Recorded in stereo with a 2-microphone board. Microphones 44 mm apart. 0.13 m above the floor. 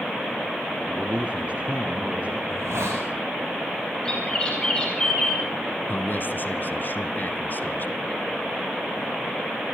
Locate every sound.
0.9 s a man speaking: 25° right (ahead or behind), 2 m; by 2.4 s 30° right (ahead or behind), 3 m
2.5 s a hiss: 80° right, 8 m
4.0 s a bird: 20° left (ahead or behind), 7 m
5.9 s a man speaking: 45° left (ahead or behind), 1.5 m